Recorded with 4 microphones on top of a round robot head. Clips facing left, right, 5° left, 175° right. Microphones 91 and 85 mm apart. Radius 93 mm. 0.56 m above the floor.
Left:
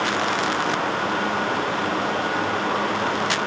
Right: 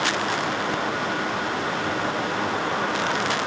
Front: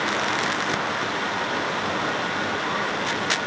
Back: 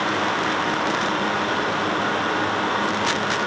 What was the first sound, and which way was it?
Only background noise.